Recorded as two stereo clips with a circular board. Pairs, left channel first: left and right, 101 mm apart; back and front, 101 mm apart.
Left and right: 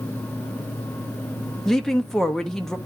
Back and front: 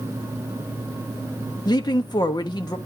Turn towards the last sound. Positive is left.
turn(degrees=175)